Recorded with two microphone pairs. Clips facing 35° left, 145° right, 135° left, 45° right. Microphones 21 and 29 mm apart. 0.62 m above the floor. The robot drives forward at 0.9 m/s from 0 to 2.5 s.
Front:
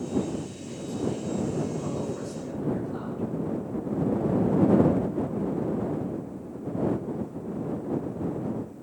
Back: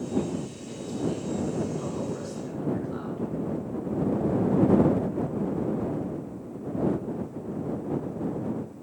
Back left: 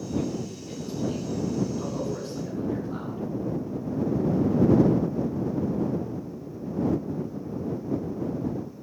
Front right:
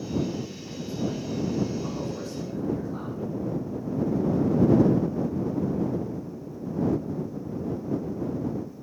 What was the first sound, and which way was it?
A man speaking, 160° left.